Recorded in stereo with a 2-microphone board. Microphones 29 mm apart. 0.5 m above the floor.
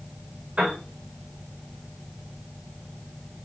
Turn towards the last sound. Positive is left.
turn(degrees=-50)  # may be behind; listen again after turning